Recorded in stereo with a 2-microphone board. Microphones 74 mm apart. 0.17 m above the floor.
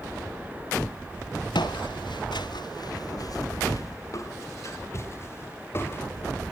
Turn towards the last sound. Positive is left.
turn(degrees=30)  # may be behind; listen again after turning